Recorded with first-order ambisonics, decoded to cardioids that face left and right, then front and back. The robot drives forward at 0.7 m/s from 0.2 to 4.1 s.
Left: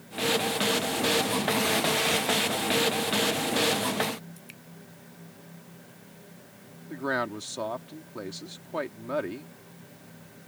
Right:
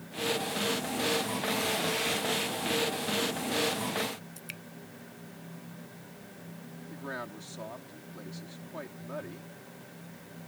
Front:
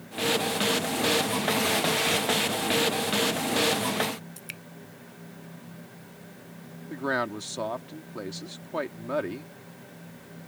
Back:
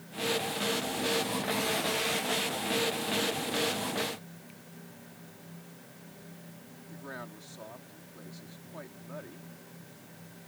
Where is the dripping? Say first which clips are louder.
Right 5 dB, front 11 dB; 25° right.